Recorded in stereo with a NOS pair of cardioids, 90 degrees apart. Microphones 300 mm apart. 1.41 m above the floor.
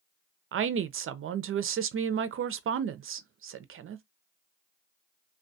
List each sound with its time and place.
0.5 s a woman speaking: 45° right, 0.5 m